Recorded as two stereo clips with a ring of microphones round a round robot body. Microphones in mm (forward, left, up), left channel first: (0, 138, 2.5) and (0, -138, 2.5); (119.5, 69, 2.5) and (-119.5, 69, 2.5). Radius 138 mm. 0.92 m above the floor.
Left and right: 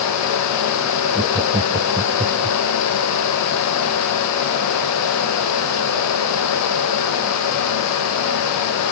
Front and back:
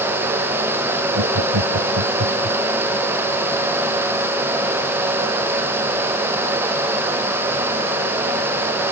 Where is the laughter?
165° right; by 2.6 s 160° right.